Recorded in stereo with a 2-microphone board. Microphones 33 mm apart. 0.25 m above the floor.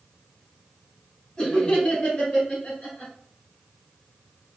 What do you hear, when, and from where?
1.4 s laughter: 30° left (ahead or behind), 1.6 m; by 3.1 s 50° left (ahead or behind), 3 m